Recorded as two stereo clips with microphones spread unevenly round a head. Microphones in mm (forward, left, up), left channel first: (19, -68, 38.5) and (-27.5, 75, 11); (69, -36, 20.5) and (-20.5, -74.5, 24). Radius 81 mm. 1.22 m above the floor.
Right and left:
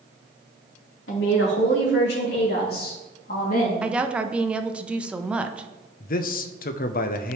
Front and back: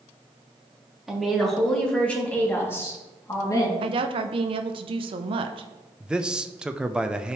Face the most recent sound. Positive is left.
turn(degrees=-75)